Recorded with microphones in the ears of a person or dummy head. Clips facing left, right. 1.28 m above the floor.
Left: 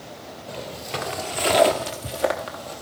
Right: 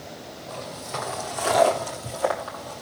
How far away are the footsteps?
About 1.3 m.